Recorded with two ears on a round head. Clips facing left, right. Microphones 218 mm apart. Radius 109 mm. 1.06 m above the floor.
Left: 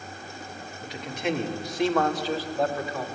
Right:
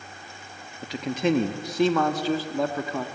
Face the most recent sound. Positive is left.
turn(degrees=-70)  # may be behind; listen again after turning